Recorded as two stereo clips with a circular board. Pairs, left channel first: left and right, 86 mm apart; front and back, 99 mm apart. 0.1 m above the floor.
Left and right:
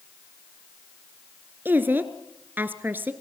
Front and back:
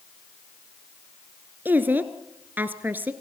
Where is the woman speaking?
130° right, 1.5 m.